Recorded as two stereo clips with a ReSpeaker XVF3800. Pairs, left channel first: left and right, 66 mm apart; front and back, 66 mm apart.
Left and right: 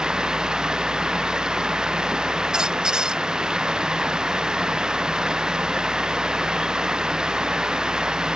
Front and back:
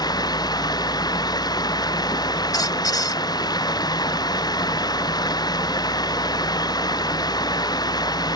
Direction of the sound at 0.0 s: 10° right.